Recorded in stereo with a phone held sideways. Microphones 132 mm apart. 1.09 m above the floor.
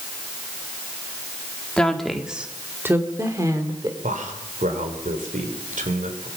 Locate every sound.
1.8 s a woman speaking: 5° left (ahead or behind), 2 m; by 3.9 s 30° right (ahead or behind), 3.5 m
4.0 s a man speaking: 85° right, 4 m